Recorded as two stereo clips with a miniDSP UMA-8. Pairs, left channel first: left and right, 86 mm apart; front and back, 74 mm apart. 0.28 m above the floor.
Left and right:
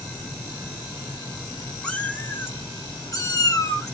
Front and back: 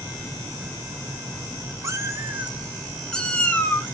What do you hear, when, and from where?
1.8 s a cat meowing: 165° left, 0.7 m; by 3.9 s 50° left, 0.9 m